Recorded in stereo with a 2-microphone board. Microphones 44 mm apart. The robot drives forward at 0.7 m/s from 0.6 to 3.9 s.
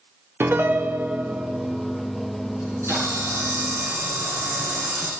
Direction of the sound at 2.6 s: 80° right.